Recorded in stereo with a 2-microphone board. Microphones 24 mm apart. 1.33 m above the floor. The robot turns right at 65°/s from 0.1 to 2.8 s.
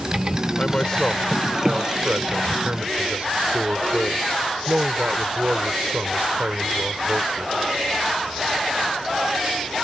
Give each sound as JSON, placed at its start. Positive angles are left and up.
{"t": 0.6, "sound": "a man speaking", "azimuth_deg": 135}